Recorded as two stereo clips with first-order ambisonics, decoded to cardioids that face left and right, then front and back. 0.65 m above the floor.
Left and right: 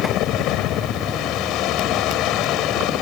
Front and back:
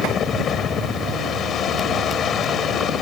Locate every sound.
0.0 s a helicopter: 60° left